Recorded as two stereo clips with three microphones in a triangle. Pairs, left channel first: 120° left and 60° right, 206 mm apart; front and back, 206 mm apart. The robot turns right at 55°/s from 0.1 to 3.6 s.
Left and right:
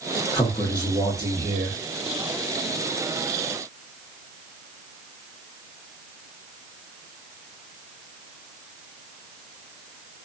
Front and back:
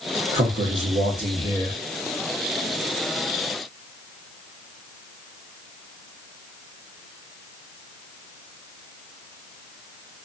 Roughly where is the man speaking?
Behind.